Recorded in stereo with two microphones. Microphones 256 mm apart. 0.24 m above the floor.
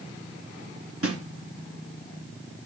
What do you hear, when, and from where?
1.0 s a snare drum: 60° right (ahead or behind), 2 m